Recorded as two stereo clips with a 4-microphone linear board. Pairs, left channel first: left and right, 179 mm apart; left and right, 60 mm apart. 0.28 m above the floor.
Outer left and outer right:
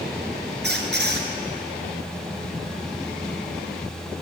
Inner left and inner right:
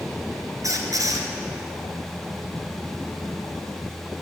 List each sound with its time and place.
0.6 s a squeak: 80° right, 2 m